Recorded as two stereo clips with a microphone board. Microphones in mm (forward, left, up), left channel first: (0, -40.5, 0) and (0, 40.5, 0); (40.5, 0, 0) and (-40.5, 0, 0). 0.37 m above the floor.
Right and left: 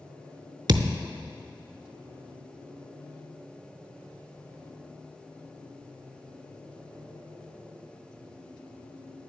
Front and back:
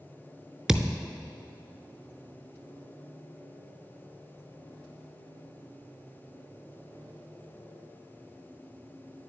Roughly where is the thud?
Left.